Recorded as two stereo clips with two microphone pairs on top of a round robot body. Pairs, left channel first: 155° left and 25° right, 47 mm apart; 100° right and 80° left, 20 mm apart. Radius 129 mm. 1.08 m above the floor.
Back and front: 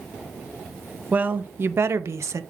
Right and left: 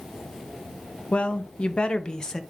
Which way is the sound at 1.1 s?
85° right.